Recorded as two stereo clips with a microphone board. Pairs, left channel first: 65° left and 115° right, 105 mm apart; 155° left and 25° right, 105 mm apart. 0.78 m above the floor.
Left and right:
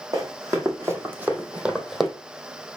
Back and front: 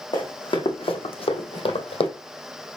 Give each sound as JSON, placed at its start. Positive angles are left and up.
{"t": 0.1, "sound": "running footsteps", "azimuth_deg": -165, "distance_m": 2.5}